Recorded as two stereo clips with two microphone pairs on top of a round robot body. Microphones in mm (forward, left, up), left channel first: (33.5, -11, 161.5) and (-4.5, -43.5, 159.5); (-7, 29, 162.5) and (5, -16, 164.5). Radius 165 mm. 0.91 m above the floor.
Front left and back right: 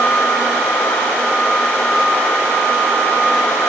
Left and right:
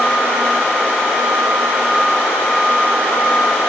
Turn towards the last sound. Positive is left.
No sound to turn to.